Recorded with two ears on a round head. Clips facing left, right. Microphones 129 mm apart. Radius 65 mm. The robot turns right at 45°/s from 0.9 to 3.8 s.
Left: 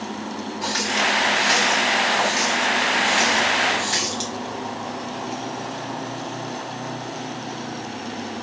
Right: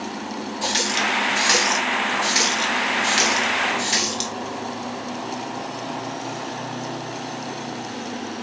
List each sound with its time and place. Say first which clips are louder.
0.6 s a running tap: left 1 dB; 30° right (ahead or behind), 1.6 m; by 4.3 s 20° right (ahead or behind), 1.6 m